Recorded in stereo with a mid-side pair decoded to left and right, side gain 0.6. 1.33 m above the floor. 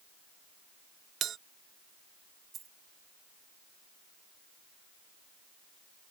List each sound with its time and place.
1.2 s a bell: 50° right
2.5 s a dropped coin: 40° right